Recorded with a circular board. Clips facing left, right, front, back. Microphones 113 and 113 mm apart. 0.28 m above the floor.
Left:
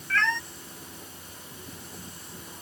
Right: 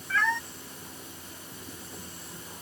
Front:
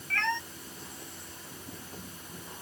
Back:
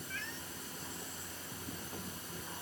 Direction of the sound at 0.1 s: 10° right.